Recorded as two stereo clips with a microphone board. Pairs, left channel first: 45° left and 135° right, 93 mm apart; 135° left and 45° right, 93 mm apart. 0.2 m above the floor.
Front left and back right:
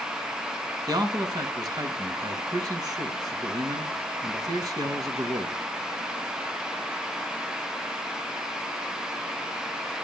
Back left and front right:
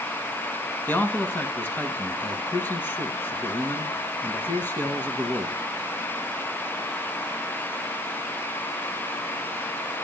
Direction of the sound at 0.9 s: 160° right.